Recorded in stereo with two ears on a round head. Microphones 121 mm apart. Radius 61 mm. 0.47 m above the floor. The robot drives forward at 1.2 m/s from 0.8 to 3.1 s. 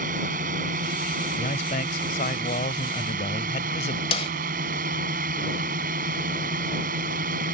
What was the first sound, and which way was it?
A drone, 60° right (ahead or behind).